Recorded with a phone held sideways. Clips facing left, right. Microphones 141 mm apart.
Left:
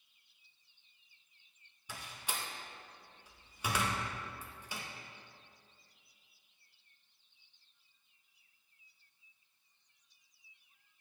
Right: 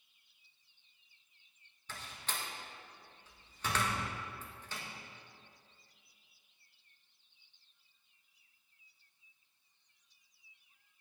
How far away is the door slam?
About 0.8 m.